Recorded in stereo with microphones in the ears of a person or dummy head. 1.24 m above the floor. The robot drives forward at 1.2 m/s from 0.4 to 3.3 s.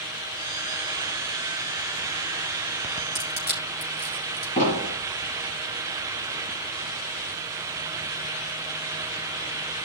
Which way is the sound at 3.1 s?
45° left (ahead or behind).